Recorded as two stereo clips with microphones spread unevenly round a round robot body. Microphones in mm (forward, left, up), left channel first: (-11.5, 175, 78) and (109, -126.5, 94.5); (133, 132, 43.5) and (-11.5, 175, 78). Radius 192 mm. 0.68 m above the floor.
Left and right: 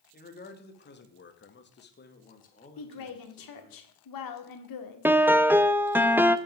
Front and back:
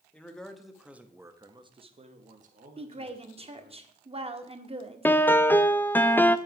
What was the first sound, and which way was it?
A man speaking, 55° left.